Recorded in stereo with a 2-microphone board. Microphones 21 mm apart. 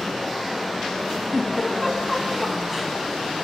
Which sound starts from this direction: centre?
A giggle, at 1.3 s.